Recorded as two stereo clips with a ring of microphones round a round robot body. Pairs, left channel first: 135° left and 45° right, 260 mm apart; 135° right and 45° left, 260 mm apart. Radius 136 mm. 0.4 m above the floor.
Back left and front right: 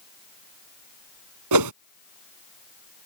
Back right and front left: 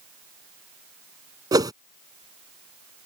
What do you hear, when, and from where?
1.5 s a whoosh: 30° right